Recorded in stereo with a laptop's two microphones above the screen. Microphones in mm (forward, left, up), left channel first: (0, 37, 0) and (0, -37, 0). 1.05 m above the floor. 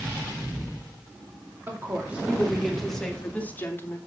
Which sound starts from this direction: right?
A woman speaking, at 1.7 s.